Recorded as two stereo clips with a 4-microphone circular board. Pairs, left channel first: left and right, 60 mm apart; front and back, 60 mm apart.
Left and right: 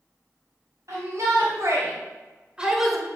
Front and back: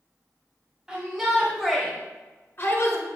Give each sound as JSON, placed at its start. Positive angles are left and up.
{"t": 0.9, "sound": "a shout", "azimuth_deg": -105, "distance_m": 2.5}